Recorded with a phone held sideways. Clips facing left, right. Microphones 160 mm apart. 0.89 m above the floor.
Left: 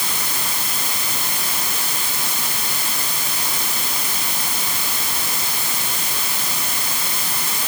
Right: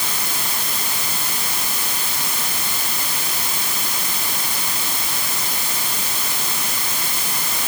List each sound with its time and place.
Only background noise.